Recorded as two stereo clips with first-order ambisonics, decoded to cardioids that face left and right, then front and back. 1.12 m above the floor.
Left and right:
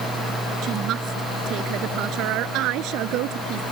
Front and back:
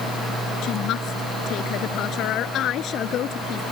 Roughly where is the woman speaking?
Ahead right.